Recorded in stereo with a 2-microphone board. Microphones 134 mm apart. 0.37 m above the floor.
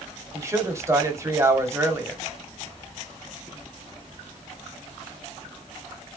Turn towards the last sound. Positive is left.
turn(degrees=-20)  # may be behind; listen again after turning